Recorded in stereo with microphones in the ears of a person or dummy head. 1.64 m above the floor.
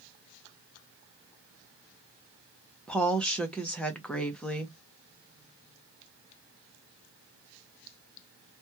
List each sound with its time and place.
2.9 s a woman speaking: 5° left (ahead or behind), 0.6 m